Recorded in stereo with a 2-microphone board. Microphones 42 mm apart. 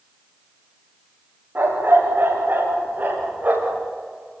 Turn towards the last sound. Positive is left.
turn(degrees=-35)  # may be behind; listen again after turning